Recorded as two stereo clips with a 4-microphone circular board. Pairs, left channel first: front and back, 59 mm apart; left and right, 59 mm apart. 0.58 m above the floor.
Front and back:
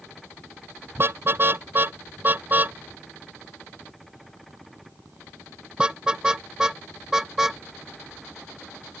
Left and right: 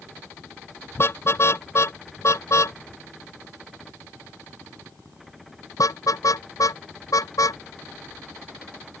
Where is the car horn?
135° left; by 7.6 s 100° left.